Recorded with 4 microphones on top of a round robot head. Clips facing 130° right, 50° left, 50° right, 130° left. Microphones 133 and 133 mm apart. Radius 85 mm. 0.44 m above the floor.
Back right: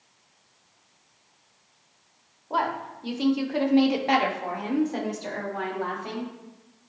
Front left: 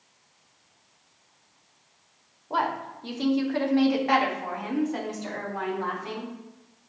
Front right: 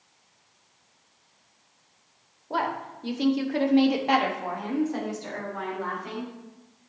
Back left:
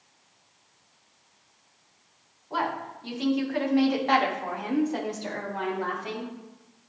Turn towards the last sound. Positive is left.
turn(degrees=175)